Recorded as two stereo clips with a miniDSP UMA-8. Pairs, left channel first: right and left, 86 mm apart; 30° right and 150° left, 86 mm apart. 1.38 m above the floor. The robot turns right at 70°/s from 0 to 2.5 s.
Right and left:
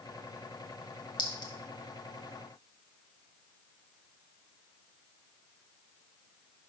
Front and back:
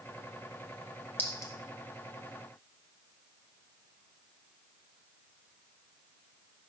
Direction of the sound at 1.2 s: 95° right.